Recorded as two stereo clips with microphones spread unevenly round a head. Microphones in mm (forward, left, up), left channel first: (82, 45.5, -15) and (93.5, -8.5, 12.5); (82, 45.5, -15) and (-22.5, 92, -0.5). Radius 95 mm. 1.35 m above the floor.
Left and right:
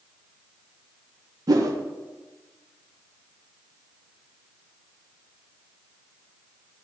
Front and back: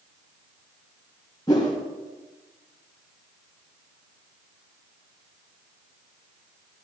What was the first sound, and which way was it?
A whoosh, 95° right.